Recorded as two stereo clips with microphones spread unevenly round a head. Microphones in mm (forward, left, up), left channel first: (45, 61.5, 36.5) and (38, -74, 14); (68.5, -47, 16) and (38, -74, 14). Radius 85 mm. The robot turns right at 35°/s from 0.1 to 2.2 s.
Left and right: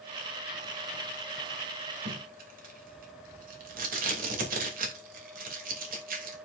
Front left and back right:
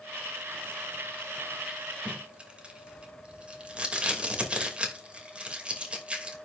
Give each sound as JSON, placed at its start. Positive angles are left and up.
{"t": 2.0, "sound": "tape being pulled", "azimuth_deg": -80, "distance_m": 2.5}